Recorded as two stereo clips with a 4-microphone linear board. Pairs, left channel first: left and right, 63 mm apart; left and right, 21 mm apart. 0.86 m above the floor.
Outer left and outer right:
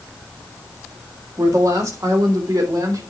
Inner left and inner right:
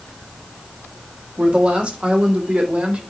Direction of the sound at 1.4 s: 60° right (ahead or behind).